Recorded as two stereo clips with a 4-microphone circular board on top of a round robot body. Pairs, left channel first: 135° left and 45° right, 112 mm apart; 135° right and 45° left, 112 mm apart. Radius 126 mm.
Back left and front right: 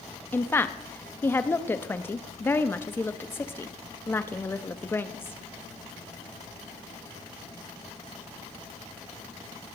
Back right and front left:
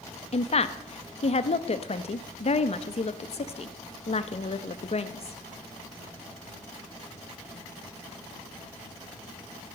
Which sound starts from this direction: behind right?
A woman speaking, at 0.3 s.